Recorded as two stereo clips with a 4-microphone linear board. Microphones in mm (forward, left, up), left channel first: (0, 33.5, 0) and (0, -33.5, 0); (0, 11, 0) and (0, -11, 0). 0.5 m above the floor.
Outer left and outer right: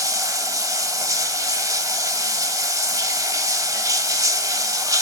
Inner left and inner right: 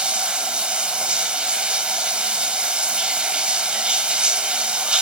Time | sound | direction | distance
0.0 | running water | 60° right (ahead or behind) | 1.1 m